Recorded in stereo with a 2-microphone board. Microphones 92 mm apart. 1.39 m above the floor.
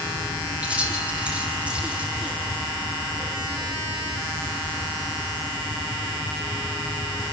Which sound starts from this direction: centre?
Keys jangling, at 0.6 s.